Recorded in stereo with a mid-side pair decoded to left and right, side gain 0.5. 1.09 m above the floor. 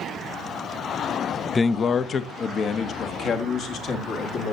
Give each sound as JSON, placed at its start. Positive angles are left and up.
{"t": 1.6, "sound": "a man speaking", "azimuth_deg": 30, "distance_m": 0.5}